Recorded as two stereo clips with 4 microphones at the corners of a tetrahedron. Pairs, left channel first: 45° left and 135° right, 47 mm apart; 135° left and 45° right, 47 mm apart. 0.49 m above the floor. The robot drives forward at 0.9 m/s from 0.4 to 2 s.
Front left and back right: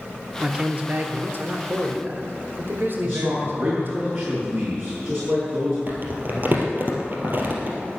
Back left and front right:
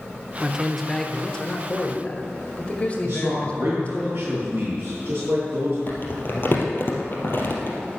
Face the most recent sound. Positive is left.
turn(degrees=180)